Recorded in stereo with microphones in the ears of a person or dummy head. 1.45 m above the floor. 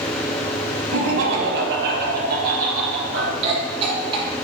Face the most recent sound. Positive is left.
turn(degrees=-30)  # may be behind; listen again after turning